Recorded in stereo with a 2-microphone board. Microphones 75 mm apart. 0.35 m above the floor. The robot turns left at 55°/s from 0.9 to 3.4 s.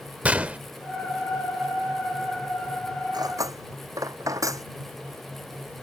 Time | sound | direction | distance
0.2 | a gunshot | 20° right (ahead or behind) | ?
3.1 | cutlery clinking | 60° right (ahead or behind) | ?